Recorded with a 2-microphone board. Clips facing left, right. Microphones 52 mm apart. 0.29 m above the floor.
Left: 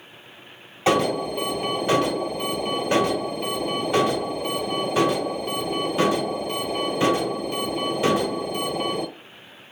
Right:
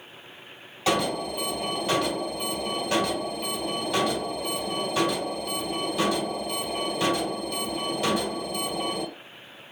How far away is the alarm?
About 1.3 m.